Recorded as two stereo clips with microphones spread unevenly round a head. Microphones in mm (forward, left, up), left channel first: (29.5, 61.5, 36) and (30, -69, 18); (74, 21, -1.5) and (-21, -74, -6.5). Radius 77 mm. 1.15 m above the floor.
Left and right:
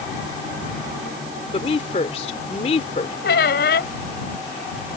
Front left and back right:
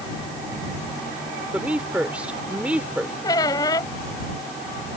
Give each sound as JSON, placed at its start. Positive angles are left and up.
{"t": 1.5, "sound": "a woman speaking", "azimuth_deg": 140}
{"t": 3.2, "sound": "a squeak", "azimuth_deg": 115}